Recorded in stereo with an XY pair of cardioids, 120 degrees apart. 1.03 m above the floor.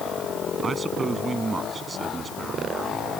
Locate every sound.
0.6 s a man speaking: 25° right